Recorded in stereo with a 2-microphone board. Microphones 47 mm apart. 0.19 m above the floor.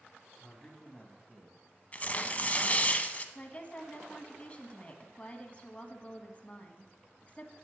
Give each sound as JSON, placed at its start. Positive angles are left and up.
{"t": 0.4, "sound": "a man speaking", "side_deg": 20, "distance_m": 1.3}
{"t": 1.9, "sound": "tearing paper", "side_deg": 35, "distance_m": 0.6}
{"t": 3.4, "sound": "a woman speaking", "side_deg": 30, "distance_m": 1.2}